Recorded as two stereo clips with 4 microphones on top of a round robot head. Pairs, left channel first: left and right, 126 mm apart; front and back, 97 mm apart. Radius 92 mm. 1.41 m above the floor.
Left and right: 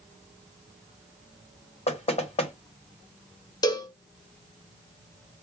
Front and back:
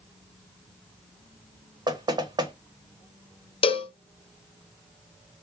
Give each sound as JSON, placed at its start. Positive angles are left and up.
{"t": 1.9, "sound": "knocking", "azimuth_deg": 130, "distance_m": 1.1}
{"t": 3.6, "sound": "a cowbell", "azimuth_deg": 25, "distance_m": 0.6}